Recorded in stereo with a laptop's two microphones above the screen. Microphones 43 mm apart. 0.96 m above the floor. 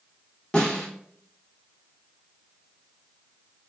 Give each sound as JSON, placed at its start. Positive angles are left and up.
{"t": 0.5, "sound": "a snare drum", "side_deg": 30, "distance_m": 0.7}